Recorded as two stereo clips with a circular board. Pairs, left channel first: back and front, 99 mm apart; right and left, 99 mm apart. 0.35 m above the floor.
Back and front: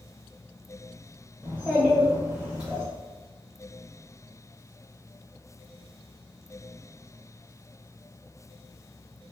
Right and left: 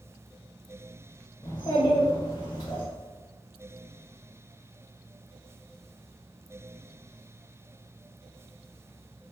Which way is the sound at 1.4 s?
75° right.